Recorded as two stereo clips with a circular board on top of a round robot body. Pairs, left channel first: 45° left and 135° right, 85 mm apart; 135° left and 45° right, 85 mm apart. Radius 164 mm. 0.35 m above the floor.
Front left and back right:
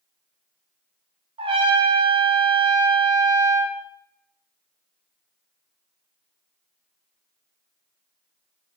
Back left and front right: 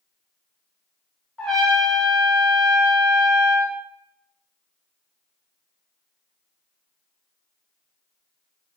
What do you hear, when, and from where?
1.4 s a trumpet: 145° right, 0.6 m